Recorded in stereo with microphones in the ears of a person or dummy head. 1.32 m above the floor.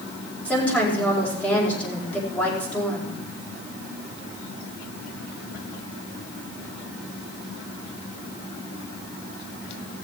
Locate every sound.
0.5 s a woman speaking: 10° left (ahead or behind), 4 m